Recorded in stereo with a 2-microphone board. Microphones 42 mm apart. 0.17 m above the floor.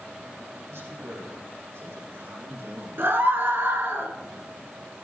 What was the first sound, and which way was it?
A man speaking, 60° right (ahead or behind).